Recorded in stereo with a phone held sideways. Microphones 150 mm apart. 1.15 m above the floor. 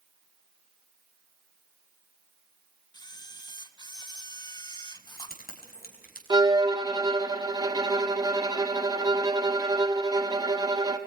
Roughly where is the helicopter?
I don't hear a helicopter.